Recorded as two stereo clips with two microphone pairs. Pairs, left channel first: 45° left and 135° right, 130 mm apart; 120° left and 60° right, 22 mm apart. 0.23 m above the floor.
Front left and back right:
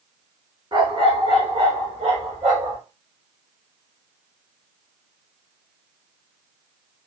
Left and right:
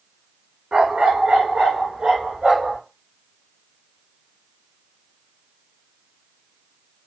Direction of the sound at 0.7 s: 85° right.